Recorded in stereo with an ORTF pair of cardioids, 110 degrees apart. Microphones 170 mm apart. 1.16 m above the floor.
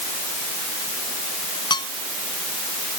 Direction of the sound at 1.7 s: 25° left.